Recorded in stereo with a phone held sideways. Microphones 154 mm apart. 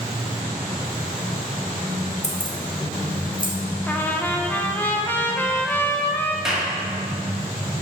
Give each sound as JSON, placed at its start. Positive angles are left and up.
{"t": 2.2, "sound": "keys jangling", "side_deg": 50, "distance_m": 1.0}
{"t": 3.9, "sound": "a trumpet", "side_deg": 10, "distance_m": 0.6}
{"t": 6.5, "sound": "a clap", "side_deg": -5, "distance_m": 1.5}